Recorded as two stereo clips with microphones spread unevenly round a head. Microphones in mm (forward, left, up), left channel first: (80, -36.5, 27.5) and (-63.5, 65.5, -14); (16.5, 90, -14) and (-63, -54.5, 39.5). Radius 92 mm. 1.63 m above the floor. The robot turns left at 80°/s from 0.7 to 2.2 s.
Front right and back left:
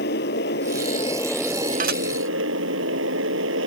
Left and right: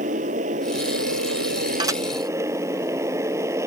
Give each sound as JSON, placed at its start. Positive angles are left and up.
{"t": 0.0, "sound": "a motorcycle", "azimuth_deg": -70}
{"t": 1.8, "sound": "dishes clattering", "azimuth_deg": -165}